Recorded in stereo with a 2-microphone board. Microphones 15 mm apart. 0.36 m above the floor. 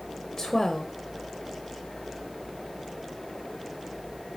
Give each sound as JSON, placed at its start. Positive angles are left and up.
{"t": 0.4, "sound": "a woman speaking", "side_deg": 30, "distance_m": 1.1}